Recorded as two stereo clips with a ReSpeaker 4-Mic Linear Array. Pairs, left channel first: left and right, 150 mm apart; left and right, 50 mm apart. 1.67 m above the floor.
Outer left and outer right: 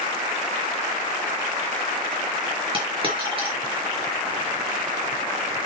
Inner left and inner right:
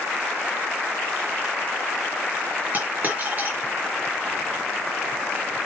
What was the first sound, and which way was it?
A dropped coin, 35° right (ahead or behind).